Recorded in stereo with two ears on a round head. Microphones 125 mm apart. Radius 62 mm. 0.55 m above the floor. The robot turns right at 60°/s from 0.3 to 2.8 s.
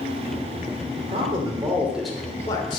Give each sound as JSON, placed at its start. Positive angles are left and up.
{"t": 1.0, "sound": "a man speaking", "azimuth_deg": -65, "distance_m": 1.8}